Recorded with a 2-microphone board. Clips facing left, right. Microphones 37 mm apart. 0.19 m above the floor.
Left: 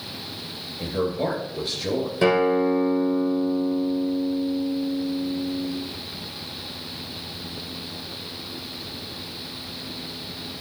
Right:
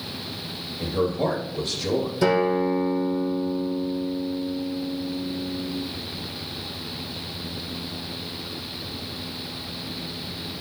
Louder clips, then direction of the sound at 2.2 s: Left 2 dB; 35° left (ahead or behind).